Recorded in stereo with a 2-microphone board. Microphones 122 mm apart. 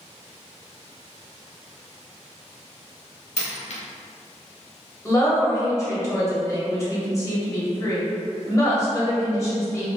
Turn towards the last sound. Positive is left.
turn(degrees=25)  # may be behind; listen again after turning